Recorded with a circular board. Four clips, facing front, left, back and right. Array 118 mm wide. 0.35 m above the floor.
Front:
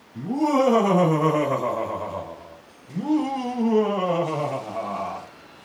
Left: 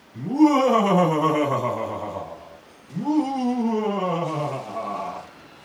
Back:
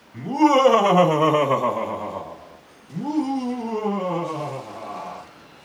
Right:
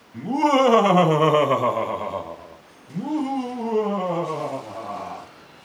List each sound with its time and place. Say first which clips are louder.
0.1 s laughter: left 2 dB, back 4 dB; 135° right, 2 m; by 5.3 s 10° left, 2 m